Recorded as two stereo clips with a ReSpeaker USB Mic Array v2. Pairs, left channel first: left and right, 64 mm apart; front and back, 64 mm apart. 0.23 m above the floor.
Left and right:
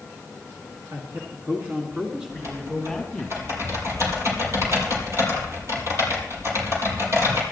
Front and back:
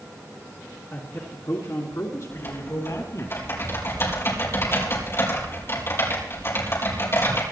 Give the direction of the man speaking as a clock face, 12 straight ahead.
2 o'clock.